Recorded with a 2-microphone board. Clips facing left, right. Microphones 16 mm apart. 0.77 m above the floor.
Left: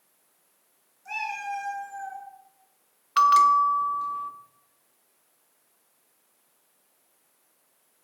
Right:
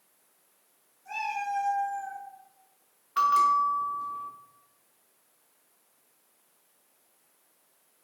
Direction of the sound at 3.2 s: 55° left (ahead or behind).